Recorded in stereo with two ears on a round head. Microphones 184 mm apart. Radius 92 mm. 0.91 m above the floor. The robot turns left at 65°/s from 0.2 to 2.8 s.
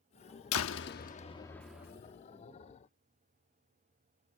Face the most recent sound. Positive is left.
turn(degrees=-70)